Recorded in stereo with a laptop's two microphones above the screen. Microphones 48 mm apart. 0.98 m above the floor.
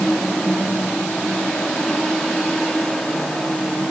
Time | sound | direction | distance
0.0 | a fan | 10° left (ahead or behind) | 3.5 m